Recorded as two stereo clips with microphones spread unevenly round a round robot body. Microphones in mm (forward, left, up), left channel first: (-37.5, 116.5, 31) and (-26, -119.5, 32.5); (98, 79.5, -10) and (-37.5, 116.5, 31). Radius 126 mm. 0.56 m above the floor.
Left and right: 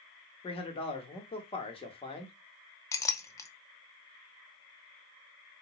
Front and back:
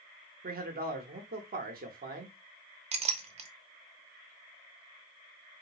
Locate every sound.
0.4 s a man speaking: 155° left, 1.0 m
2.9 s a clink: 155° left, 0.6 m